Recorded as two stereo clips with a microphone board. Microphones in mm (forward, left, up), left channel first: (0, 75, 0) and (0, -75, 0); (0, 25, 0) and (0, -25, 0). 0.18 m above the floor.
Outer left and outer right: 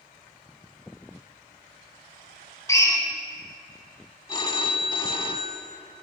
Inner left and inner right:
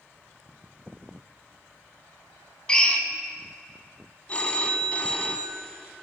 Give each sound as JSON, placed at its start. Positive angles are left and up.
{"t": 2.7, "sound": "a drill", "side_deg": 20, "distance_m": 0.7}
{"t": 4.3, "sound": "a phone ringing", "side_deg": 30, "distance_m": 0.6}